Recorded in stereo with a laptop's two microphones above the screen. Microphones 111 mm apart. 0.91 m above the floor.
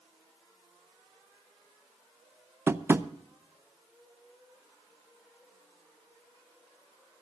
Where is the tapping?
20° right (ahead or behind), 0.6 m.